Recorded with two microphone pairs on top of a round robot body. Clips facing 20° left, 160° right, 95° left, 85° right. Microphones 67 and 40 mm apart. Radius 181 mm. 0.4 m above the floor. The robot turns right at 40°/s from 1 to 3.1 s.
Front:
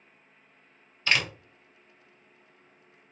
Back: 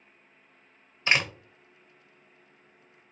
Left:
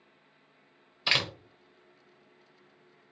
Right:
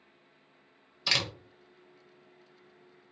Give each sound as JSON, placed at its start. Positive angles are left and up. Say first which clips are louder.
{"t": 1.1, "sound": "a door slam", "louder": "back 1 dB, left 2 dB", "azimuth_deg": 140, "distance_m": 1.2}